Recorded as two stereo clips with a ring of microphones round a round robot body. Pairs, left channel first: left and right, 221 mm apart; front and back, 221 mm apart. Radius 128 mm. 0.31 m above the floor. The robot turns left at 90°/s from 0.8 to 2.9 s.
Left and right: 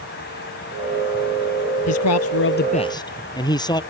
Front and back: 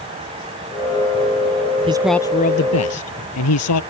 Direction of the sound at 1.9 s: 110° left.